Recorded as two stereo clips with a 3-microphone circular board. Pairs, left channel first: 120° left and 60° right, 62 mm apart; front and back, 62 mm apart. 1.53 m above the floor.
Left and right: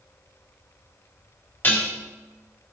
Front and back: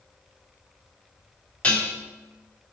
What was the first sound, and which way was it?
Dishes clattering, 65° left.